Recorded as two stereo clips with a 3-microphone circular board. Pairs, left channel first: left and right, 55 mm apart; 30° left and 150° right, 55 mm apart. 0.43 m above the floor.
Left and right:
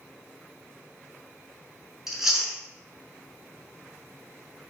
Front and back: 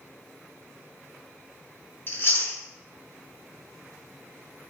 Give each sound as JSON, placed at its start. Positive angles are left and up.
{"t": 2.1, "sound": "chewing", "azimuth_deg": -10, "distance_m": 4.0}